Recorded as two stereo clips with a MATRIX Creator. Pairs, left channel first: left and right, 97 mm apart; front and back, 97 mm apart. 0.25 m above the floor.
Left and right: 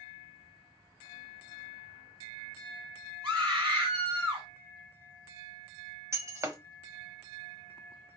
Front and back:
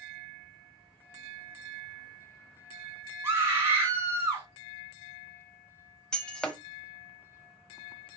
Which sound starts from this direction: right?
Breaking glass, at 6.1 s.